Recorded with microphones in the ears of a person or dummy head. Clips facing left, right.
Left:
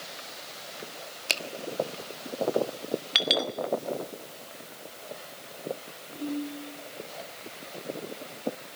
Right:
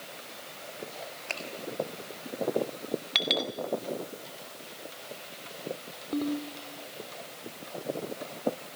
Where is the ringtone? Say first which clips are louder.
Right 2 dB; 55° right (ahead or behind), 3 m.